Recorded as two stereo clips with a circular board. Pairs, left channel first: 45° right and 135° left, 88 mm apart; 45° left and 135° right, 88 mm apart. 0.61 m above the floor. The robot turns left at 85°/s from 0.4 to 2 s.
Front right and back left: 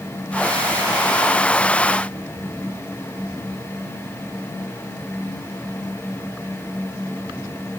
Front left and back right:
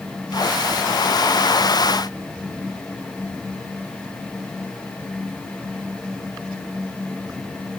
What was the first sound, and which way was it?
Only background noise.